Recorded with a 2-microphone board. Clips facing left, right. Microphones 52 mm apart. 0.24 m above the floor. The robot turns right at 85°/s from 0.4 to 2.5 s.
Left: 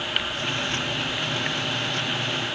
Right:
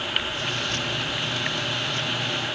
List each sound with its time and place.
Only background noise.